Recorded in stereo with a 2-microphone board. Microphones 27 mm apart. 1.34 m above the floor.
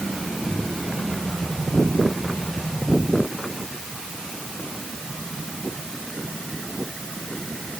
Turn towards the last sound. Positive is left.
No sound to turn to.